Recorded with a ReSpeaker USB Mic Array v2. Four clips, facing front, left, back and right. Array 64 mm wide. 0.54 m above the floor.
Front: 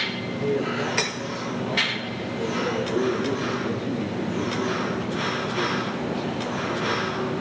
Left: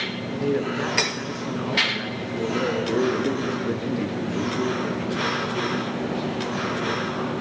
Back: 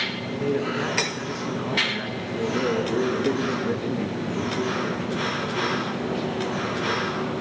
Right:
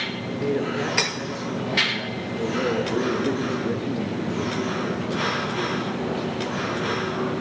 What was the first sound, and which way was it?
A man speaking, 115° left.